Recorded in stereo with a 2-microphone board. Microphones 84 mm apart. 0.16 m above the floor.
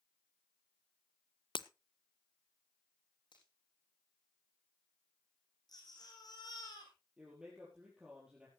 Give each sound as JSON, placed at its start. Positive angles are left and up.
{"t": 1.6, "sound": "breaking glass", "side_deg": 85, "distance_m": 0.5}
{"t": 3.3, "sound": "a finger snap", "side_deg": 65, "distance_m": 7.0}
{"t": 5.7, "sound": "a baby crying", "side_deg": 50, "distance_m": 5.5}
{"t": 7.2, "sound": "a man speaking", "side_deg": -10, "distance_m": 4.5}